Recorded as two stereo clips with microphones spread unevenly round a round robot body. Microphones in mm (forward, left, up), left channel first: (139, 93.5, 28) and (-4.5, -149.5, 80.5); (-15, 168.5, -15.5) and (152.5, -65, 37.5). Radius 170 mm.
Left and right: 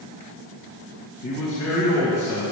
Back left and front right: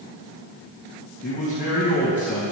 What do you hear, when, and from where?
1.2 s a man speaking: 70° left, 3 m